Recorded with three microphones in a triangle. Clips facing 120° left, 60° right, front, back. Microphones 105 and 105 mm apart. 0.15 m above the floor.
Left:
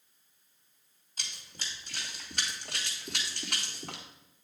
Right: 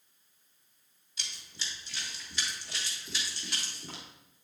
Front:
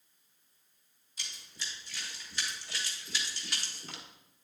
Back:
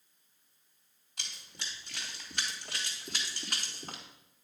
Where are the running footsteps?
160° left, 3.5 m; by 4.0 s 135° left, 2.5 m.